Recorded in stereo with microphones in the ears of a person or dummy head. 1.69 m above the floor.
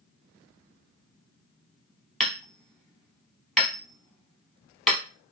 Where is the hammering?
5° left (ahead or behind), 0.9 m.